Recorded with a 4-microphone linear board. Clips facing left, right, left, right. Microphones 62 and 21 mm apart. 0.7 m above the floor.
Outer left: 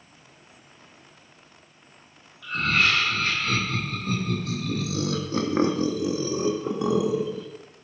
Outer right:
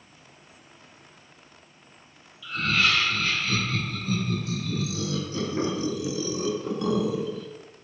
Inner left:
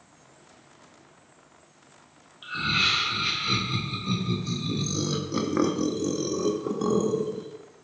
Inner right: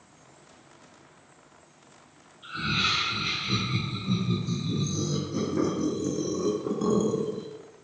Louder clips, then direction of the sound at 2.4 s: Outer left 2 dB, inner left 3 dB; 55° left (ahead or behind).